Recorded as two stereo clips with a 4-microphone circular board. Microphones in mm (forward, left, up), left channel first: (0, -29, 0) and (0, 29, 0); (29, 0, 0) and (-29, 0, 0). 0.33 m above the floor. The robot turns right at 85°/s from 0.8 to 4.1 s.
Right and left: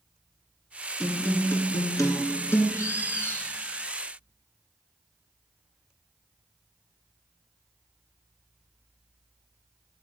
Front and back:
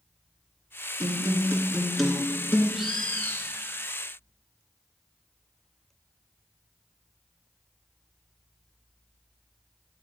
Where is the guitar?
175° right, 1.5 m; by 2.6 s 40° right, 1.5 m.